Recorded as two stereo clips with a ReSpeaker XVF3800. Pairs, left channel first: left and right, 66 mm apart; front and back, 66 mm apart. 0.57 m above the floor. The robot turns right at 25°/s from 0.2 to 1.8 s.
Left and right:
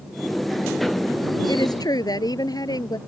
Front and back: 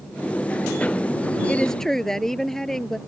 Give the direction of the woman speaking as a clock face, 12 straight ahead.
9 o'clock.